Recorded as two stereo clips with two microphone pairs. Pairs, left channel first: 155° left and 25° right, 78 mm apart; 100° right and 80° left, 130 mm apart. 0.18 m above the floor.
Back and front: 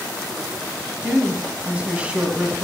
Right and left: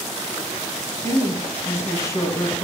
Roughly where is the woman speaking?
Right.